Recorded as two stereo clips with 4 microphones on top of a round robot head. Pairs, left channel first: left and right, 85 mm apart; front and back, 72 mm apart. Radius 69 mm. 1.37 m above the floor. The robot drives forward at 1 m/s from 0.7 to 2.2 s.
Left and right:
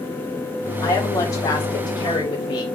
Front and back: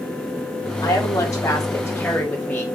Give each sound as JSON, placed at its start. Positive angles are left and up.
{"t": 0.8, "sound": "a woman speaking", "azimuth_deg": 40, "distance_m": 2.5}